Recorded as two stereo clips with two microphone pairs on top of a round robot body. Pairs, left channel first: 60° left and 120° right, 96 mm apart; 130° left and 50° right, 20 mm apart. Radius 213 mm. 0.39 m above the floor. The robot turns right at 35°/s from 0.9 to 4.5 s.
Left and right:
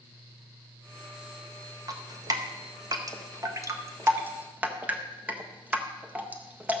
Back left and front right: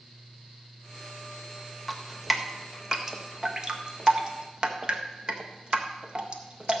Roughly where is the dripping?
Behind right.